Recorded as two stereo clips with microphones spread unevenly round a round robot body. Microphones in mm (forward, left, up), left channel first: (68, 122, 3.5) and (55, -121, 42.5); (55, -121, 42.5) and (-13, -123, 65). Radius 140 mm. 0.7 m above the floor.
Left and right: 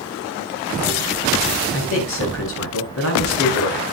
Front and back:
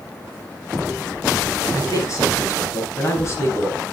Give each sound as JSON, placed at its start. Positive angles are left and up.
{"t": 1.7, "sound": "a man speaking", "azimuth_deg": 55, "distance_m": 7.5}